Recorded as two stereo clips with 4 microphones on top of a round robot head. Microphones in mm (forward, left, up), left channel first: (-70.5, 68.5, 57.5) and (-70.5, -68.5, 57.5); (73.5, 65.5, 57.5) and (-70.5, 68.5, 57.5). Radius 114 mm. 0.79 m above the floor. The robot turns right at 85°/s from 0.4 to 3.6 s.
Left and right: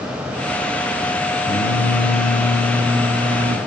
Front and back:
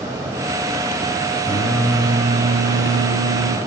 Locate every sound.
1.4 s singing: 60° left, 3.5 m; by 3.6 s 120° right, 3.5 m